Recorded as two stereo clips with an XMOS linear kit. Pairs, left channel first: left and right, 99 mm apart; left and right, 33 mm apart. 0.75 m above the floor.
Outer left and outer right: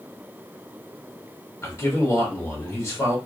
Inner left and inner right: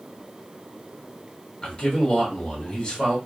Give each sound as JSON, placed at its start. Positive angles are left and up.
{"t": 1.6, "sound": "a man speaking", "side_deg": 30, "distance_m": 1.2}